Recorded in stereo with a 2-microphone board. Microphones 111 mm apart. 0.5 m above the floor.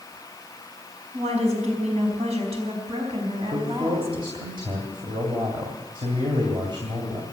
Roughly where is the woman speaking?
Right.